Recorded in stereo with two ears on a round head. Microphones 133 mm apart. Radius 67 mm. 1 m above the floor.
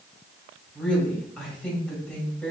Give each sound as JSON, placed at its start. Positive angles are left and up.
{"t": 0.8, "sound": "a woman speaking", "side_deg": 0, "distance_m": 2.0}